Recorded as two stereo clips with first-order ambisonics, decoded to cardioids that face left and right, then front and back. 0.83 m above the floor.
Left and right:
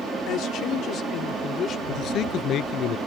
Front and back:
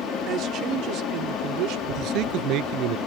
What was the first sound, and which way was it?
A man speaking, 135° left.